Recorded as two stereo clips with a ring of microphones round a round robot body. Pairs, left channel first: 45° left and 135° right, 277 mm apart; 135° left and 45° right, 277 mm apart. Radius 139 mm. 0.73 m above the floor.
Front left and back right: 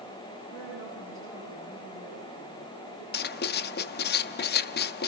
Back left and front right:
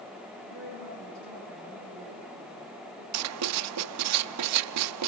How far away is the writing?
About 0.6 m.